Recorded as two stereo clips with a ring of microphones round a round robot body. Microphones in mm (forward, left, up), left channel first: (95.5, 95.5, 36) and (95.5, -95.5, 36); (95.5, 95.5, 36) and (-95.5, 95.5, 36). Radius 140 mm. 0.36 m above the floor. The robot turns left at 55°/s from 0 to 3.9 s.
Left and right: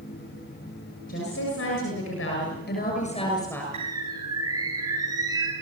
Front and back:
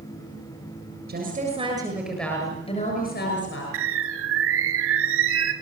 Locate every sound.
1.1 s a woman speaking: 145° left, 7.5 m; by 3.6 s 5° left, 7.5 m
3.7 s a bird: 160° right, 1.8 m; by 5.5 s 165° right, 1.8 m